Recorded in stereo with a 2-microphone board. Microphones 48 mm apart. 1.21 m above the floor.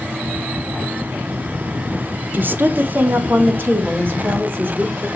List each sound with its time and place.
2.3 s a woman speaking: 40° right (ahead or behind), 0.5 m; by 5.1 s 45° right (ahead or behind), 2.5 m